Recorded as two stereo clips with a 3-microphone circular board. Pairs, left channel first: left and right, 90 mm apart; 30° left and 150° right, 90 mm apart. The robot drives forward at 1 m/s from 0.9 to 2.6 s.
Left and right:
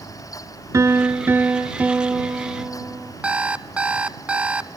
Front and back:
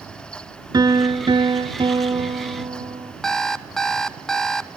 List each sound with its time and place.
0.7 s a piano: 135° right, 0.8 m; by 3.1 s 170° right, 2.5 m
3.2 s an alarm clock: 40° right, 0.5 m